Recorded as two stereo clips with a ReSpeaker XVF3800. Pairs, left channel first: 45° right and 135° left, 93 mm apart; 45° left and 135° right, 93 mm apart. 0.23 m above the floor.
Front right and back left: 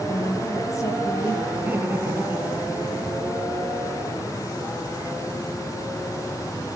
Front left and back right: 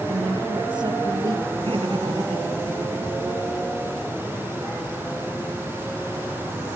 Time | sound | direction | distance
0.1 | a woman speaking | 100° right | 5.5 m
1.6 | laughter | 155° right | 5 m